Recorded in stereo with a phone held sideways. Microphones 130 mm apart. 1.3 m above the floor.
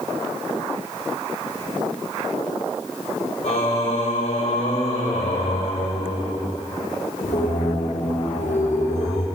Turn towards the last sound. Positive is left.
turn(degrees=70)  # may be behind; listen again after turning